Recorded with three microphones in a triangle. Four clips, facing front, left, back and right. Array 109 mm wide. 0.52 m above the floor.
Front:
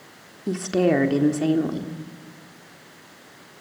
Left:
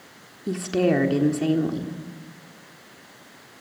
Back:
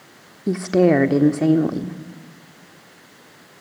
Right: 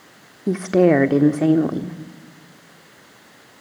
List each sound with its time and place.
0.5 s a woman speaking: 120° right, 1.2 m